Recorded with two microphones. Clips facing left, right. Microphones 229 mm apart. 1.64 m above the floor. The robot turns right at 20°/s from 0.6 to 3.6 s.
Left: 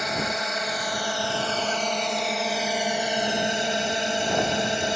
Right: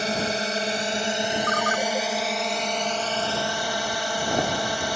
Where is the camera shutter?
I don't hear a camera shutter.